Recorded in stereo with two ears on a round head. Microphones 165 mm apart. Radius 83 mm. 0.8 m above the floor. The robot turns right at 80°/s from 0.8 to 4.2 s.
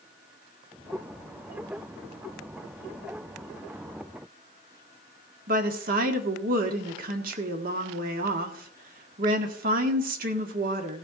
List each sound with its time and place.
5.5 s a woman speaking: 50° right (ahead or behind), 1.6 m